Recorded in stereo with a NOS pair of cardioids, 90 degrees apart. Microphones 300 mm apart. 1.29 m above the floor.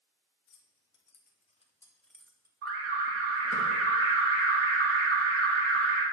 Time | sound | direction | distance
0.5 | keys jangling | 55° left | 1.3 m
2.6 | an alarm | 50° right | 2 m